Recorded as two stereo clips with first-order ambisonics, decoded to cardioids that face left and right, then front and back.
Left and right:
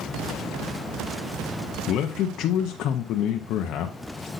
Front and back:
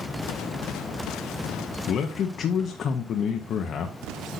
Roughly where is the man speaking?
Ahead left.